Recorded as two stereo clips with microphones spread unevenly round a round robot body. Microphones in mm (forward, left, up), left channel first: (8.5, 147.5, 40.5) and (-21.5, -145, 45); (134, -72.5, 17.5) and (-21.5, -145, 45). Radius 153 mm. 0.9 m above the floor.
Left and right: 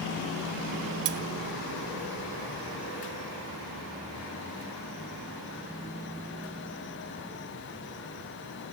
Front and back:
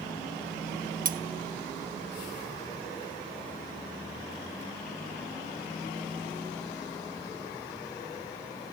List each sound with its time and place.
1.1 s cutlery clinking: 120° right, 1.2 m